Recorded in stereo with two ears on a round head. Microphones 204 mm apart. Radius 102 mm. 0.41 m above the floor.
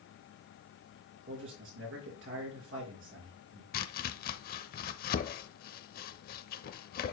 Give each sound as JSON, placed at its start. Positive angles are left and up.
{"t": 1.3, "sound": "a man speaking", "side_deg": -60, "distance_m": 4.5}
{"t": 3.7, "sound": "chopping", "side_deg": 40, "distance_m": 0.6}